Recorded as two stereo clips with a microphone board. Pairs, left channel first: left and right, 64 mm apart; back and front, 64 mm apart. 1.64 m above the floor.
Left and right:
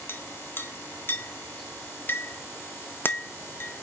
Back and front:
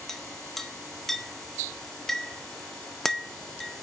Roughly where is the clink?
Left.